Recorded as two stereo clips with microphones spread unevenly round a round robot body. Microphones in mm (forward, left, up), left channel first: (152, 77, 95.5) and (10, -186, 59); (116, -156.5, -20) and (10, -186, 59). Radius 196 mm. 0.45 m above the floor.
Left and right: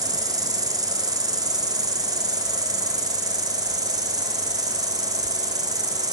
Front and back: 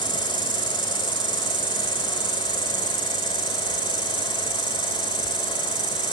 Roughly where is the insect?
Behind.